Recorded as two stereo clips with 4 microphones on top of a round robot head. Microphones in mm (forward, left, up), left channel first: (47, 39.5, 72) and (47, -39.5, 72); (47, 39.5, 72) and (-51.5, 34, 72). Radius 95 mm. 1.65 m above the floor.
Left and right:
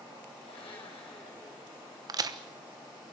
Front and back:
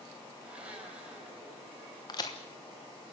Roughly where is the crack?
Ahead right.